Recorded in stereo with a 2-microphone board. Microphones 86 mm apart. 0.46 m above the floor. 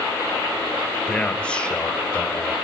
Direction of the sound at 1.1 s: 10° left (ahead or behind).